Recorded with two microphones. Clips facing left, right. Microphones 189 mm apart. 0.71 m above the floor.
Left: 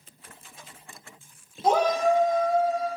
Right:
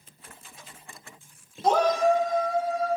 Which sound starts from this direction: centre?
A shout, at 1.6 s.